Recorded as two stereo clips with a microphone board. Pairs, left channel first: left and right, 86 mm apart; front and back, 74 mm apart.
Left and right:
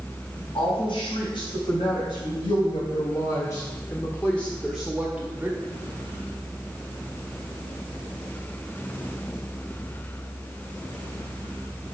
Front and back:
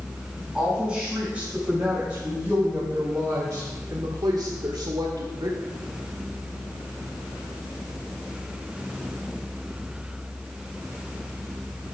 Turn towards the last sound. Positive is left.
turn(degrees=-155)